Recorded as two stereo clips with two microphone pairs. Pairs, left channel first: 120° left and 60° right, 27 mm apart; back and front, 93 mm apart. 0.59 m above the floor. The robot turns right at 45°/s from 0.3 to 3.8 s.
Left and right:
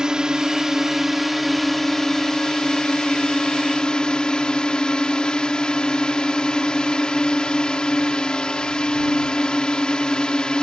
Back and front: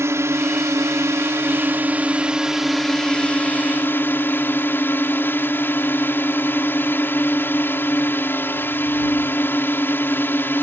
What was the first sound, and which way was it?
A drone, 20° right.